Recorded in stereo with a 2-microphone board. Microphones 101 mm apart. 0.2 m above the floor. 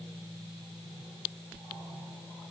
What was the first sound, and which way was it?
Only background noise.